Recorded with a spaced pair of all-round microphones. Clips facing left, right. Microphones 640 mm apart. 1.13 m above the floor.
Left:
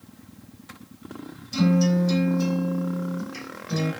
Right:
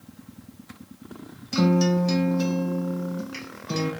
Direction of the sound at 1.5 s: 80° right.